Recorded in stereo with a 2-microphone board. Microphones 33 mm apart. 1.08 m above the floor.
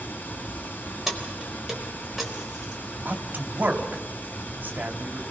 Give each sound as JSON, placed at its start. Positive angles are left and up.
{"t": 0.0, "sound": "running water", "side_deg": 80, "distance_m": 3.0}
{"t": 1.1, "sound": "keys jangling", "side_deg": -10, "distance_m": 4.0}
{"t": 3.0, "sound": "a man speaking", "side_deg": -70, "distance_m": 2.5}